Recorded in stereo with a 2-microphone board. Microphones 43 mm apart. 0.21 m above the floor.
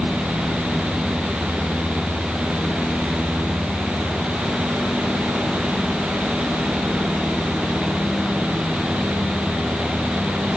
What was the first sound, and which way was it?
Only background noise.